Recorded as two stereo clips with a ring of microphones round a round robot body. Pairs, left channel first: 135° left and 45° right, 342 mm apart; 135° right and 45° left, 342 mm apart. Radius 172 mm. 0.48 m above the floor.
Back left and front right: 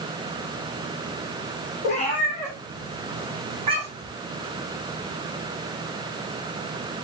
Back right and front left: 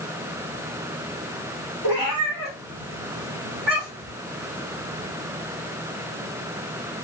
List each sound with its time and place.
1.8 s a cat meowing: 65° left, 3.5 m; by 4.2 s 25° left, 4.5 m